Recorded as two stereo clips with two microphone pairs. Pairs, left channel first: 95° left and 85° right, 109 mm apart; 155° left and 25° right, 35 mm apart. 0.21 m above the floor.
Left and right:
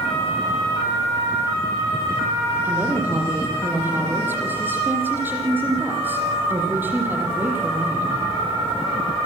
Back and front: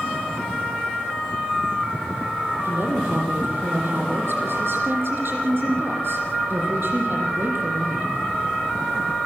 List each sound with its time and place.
2.6 s a woman speaking: 15° right, 7 m